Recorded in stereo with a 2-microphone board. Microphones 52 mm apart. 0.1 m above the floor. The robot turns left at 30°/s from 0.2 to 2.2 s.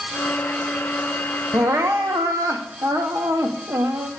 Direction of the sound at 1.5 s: 55° right (ahead or behind).